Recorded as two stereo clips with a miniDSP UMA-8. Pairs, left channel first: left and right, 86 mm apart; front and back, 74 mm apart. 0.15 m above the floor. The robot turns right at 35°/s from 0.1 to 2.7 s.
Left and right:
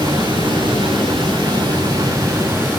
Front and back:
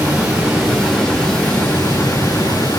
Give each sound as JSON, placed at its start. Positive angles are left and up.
{"t": 0.0, "sound": "running water", "azimuth_deg": -115, "distance_m": 5.5}